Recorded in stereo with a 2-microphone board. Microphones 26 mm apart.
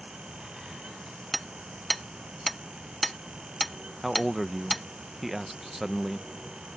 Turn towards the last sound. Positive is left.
turn(degrees=-15)  # may be behind; listen again after turning